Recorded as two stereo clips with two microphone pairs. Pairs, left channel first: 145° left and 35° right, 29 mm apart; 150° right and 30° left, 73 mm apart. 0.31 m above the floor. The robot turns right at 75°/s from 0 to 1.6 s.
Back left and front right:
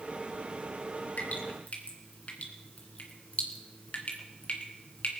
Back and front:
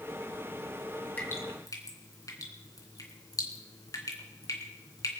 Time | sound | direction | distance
1.2 | dripping | 145° left | 3 m